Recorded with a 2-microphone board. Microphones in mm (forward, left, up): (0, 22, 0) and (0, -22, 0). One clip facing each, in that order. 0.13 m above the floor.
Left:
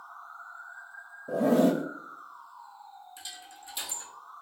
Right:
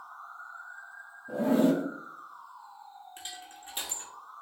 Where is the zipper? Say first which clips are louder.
Left 1 dB; 75° left (ahead or behind), 1.0 m.